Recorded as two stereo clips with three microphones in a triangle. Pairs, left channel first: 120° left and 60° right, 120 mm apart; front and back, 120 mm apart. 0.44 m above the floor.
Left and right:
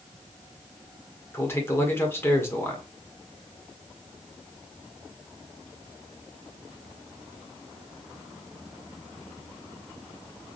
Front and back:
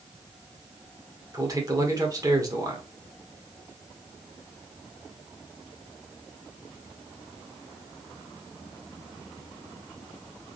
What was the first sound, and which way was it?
A man speaking, 170° left.